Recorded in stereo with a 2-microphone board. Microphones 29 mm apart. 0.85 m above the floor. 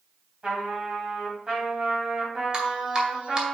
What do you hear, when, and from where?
0.4 s a trumpet: 30° right (ahead or behind), 3 m
2.5 s dripping: 30° right (ahead or behind), 1.9 m